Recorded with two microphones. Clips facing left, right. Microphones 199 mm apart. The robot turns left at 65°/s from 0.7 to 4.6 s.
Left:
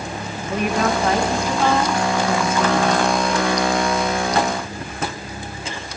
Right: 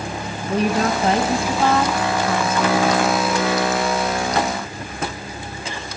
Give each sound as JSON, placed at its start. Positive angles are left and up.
{"t": 0.5, "sound": "a woman speaking", "azimuth_deg": -110, "distance_m": 1.3}